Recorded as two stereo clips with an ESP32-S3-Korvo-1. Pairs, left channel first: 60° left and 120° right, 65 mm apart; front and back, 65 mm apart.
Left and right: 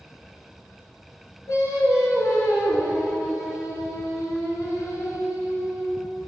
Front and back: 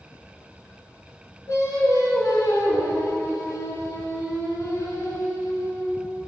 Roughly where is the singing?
Ahead left.